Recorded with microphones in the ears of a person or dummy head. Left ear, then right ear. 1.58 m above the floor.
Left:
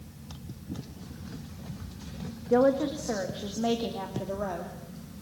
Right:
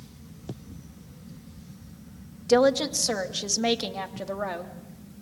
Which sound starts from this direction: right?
A woman speaking, at 2.5 s.